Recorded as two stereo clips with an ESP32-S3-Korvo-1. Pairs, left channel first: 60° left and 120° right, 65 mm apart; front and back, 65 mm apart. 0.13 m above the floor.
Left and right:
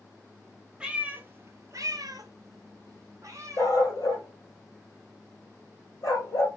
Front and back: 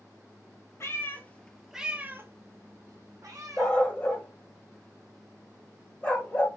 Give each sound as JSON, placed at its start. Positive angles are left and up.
{"t": 0.8, "sound": "a cat meowing", "azimuth_deg": -45, "distance_m": 0.7}
{"t": 3.6, "sound": "a dog barking", "azimuth_deg": 70, "distance_m": 1.3}